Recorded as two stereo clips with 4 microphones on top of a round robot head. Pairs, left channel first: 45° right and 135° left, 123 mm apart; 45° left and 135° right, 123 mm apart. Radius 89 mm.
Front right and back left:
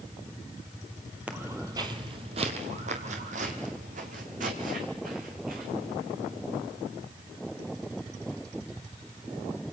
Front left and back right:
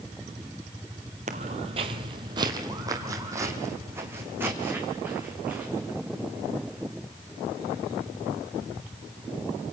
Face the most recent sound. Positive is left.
turn(degrees=145)